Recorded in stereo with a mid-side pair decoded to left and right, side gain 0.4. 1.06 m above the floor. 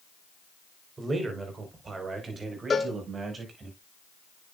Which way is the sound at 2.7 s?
35° left.